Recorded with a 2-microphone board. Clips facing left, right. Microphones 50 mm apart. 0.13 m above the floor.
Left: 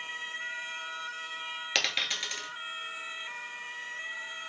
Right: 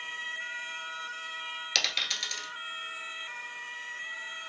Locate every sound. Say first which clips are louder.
1.8 s a dropped coin: left 1 dB; 20° left (ahead or behind), 1.0 m